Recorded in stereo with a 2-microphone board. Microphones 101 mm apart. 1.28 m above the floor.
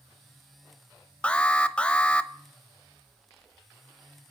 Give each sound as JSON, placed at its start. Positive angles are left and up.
{"t": 1.2, "sound": "an alarm", "side_deg": 10, "distance_m": 0.7}